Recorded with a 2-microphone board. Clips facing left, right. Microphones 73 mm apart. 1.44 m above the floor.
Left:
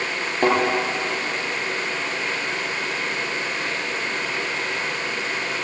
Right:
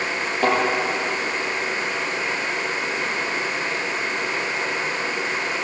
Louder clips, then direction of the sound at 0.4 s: Left 1 dB; 55° left (ahead or behind).